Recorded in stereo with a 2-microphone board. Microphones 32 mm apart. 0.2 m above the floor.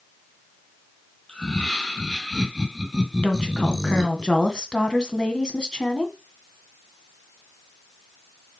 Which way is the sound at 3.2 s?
30° left (ahead or behind).